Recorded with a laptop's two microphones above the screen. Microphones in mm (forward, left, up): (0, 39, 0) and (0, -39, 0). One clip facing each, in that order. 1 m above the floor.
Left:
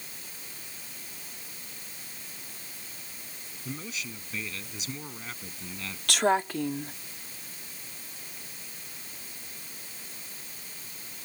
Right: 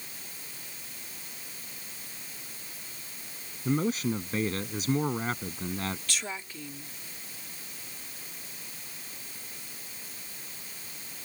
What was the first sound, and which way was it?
A man speaking, 45° right (ahead or behind).